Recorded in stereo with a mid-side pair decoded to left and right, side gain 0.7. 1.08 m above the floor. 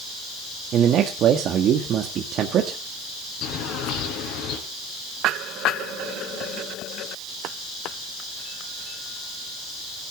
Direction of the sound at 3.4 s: 60° left.